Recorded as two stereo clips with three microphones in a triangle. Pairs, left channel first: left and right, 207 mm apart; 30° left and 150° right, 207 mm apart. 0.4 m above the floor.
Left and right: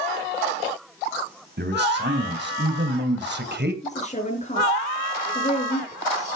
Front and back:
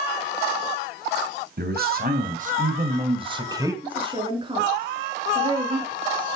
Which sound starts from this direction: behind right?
A man speaking, at 1.6 s.